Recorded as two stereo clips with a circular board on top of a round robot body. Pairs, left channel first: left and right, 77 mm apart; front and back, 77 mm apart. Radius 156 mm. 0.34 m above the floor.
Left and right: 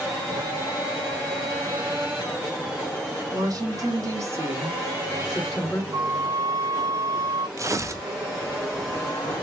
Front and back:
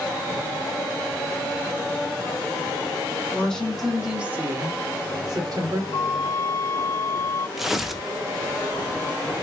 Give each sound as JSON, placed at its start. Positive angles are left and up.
{"t": 3.3, "sound": "a woman speaking", "azimuth_deg": -75, "distance_m": 1.3}
{"t": 5.9, "sound": "a flute", "azimuth_deg": -40, "distance_m": 0.5}
{"t": 7.6, "sound": "tearing paper", "azimuth_deg": -95, "distance_m": 0.6}